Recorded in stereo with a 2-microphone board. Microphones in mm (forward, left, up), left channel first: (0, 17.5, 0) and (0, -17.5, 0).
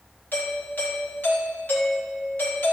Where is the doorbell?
70° left (ahead or behind), 3.5 m.